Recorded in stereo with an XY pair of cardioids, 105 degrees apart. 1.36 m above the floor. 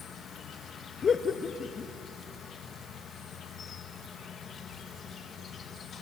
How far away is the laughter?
About 1.5 m.